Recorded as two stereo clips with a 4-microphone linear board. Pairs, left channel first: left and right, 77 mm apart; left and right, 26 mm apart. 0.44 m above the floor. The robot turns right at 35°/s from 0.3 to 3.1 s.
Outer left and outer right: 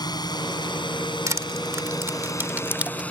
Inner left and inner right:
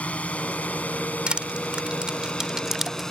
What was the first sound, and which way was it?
A drone, 60° left (ahead or behind).